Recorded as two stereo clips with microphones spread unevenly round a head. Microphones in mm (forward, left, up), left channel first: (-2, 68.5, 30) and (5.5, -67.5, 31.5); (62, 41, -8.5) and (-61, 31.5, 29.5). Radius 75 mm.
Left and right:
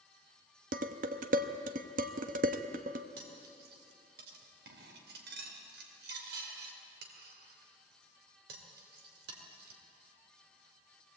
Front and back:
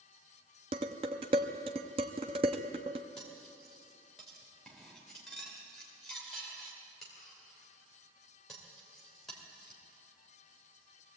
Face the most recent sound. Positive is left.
turn(degrees=-85)